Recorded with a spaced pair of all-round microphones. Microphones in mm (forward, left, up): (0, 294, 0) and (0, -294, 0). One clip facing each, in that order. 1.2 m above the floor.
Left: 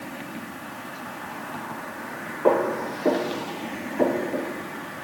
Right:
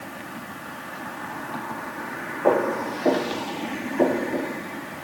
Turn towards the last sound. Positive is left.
turn(degrees=20)  # may be behind; listen again after turning